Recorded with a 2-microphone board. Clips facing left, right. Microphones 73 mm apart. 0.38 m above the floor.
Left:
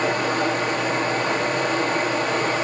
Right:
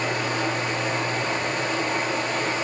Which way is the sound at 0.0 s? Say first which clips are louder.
Left 4 dB; 45° left (ahead or behind).